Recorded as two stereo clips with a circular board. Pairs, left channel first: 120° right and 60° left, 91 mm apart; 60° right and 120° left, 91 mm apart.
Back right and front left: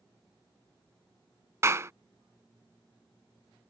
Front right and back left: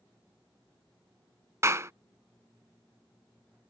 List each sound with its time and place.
1.6 s a clap: 90° left